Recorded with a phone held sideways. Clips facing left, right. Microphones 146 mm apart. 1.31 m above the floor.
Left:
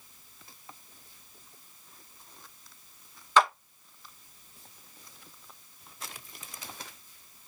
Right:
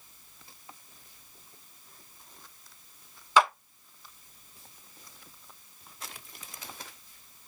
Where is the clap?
10° right (ahead or behind), 1.3 m.